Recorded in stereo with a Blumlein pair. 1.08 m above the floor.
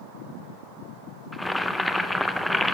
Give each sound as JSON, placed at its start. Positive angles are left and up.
{"t": 1.3, "sound": "boiling", "azimuth_deg": 0, "distance_m": 0.6}